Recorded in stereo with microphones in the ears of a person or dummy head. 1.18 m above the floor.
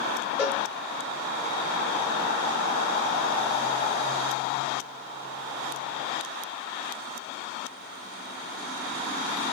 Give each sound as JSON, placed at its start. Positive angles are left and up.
{"t": 0.4, "sound": "a cowbell", "side_deg": -15, "distance_m": 0.8}